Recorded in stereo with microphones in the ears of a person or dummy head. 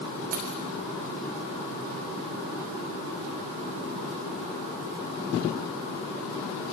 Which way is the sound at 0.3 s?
40° right (ahead or behind).